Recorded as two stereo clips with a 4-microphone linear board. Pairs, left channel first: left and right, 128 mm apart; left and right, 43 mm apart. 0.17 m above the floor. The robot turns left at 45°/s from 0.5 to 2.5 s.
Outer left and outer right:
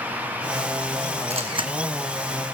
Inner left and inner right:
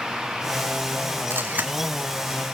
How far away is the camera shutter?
About 1.7 m.